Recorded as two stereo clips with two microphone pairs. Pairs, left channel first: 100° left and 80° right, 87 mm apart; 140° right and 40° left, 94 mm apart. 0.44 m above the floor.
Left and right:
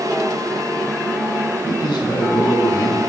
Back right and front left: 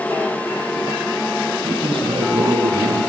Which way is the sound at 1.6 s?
65° left.